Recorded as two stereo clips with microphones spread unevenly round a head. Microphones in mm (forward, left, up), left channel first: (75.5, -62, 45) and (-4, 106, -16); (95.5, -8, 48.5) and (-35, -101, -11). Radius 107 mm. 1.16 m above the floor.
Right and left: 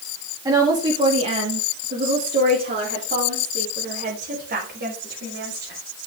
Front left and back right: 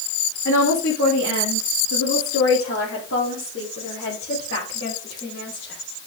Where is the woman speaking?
45° left, 1.7 m; by 5.8 s 85° left, 4.5 m.